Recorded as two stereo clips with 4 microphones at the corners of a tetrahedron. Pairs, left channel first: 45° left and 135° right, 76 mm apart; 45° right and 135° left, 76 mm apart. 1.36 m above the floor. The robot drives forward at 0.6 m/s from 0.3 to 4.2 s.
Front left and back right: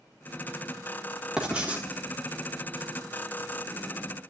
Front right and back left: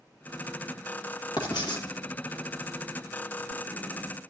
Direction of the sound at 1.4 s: 55° right.